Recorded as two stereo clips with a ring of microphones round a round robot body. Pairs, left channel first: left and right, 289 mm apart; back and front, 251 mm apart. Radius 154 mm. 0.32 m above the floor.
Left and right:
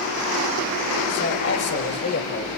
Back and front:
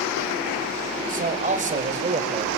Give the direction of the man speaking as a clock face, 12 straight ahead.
10 o'clock.